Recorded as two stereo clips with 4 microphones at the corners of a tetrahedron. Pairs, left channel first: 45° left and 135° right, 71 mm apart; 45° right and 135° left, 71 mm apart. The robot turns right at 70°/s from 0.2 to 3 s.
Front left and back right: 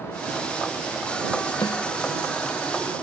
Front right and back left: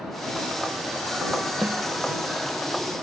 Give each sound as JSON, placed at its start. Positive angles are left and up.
{"t": 1.6, "sound": "a snare drum", "azimuth_deg": 60}